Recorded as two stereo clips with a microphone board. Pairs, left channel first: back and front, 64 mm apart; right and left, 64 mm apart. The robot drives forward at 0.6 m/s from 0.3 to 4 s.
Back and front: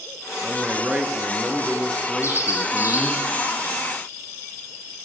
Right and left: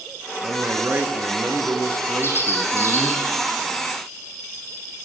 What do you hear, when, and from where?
0.4 s a man speaking: 50° left, 2 m; by 3.2 s 125° left, 2.0 m
2.2 s a bird: 140° right, 4.5 m; by 3.3 s 145° right, 5 m